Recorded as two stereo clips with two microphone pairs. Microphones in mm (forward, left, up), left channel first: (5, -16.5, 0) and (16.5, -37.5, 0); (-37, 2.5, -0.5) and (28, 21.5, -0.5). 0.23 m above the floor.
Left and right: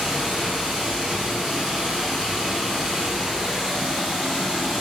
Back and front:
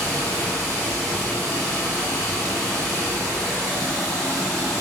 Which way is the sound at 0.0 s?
100° right.